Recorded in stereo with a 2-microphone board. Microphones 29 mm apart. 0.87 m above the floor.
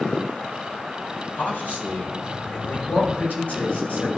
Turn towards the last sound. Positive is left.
turn(degrees=65)  # may be behind; listen again after turning